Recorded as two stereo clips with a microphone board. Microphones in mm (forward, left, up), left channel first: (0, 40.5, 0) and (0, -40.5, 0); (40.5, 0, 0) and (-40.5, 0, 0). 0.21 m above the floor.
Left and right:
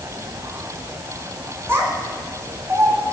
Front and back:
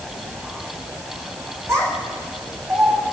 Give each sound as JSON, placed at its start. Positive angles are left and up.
{"t": 1.7, "sound": "a child speaking", "azimuth_deg": -140, "distance_m": 1.6}